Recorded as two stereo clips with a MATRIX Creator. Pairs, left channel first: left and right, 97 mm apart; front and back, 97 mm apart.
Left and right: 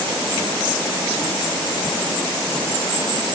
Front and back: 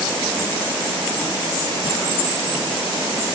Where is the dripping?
I don't hear dripping.